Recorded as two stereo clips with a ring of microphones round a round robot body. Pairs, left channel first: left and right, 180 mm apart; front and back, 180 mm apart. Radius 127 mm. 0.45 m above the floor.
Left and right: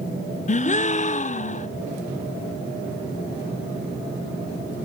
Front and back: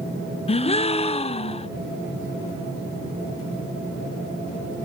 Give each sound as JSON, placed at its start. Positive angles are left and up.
{"t": 0.5, "sound": "a gasp", "azimuth_deg": 50, "distance_m": 0.5}